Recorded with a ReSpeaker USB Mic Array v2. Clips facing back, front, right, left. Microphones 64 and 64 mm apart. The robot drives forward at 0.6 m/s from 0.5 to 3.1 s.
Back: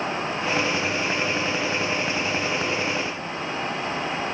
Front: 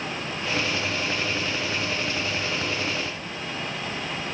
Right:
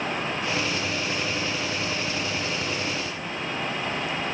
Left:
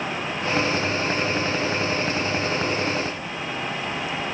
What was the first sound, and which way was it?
Only background noise.